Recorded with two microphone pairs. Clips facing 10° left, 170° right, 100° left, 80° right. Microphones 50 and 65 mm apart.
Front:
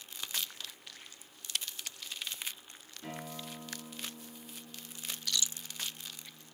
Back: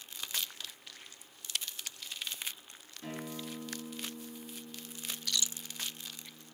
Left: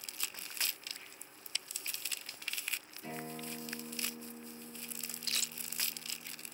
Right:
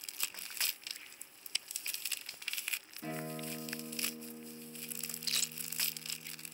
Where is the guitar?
105° right, 6.5 m.